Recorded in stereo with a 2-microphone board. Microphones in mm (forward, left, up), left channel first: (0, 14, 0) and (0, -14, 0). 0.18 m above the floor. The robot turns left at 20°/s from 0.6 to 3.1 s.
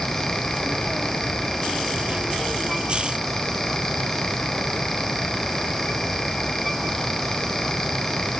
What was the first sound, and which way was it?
Only background noise.